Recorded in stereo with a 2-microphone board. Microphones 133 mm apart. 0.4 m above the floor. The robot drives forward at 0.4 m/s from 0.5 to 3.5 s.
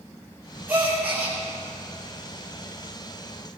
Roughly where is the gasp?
Centre.